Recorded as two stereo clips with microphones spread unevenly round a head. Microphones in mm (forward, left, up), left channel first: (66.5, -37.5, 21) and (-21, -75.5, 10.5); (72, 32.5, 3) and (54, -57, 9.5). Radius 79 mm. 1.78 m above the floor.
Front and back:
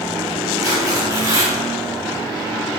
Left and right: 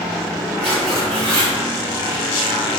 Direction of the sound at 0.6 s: 105° right.